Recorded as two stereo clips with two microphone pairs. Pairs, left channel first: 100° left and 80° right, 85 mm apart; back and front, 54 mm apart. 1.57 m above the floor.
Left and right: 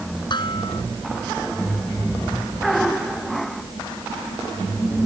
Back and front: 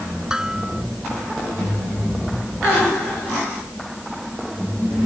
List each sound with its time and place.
0.3 s dishes clattering: 75° left